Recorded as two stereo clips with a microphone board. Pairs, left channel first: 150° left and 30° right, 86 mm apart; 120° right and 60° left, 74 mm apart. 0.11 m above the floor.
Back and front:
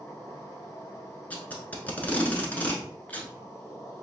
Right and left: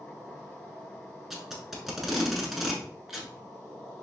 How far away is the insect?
About 1.9 m.